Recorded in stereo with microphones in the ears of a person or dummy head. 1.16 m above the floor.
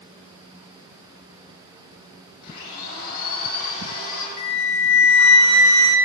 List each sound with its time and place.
2.4 s a blender: 50° left (ahead or behind), 5.5 m
4.4 s a flute: 75° left (ahead or behind), 1.0 m